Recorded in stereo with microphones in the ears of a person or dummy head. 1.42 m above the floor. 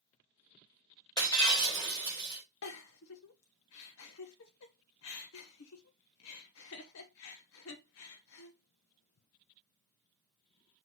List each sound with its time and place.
1.2 s breaking glass: 20° left (ahead or behind), 3 m
2.6 s a giggle: 75° left (ahead or behind), 1.3 m